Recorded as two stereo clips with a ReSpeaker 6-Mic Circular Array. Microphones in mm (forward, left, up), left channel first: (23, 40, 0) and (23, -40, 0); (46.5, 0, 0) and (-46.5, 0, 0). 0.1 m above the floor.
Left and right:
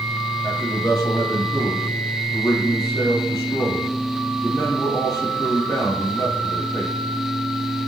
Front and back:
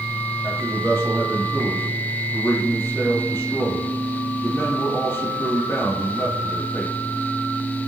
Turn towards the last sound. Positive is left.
turn(degrees=60)